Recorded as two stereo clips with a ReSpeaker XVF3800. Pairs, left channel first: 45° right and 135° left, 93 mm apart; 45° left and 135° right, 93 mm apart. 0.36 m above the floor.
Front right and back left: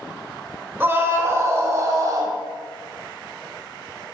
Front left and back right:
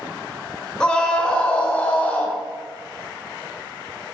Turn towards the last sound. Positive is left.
turn(degrees=115)